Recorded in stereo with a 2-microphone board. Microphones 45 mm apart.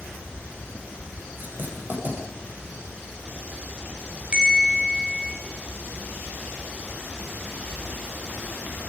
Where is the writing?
45° right (ahead or behind), 9.5 m.